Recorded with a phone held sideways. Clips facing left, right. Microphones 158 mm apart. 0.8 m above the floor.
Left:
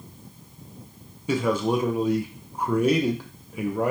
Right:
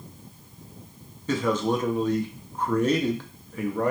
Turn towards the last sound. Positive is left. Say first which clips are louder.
# left 1 dB
turn(degrees=10)  # may be behind; listen again after turning